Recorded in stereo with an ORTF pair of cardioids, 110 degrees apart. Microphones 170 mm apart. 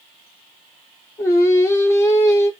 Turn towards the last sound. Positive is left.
turn(degrees=15)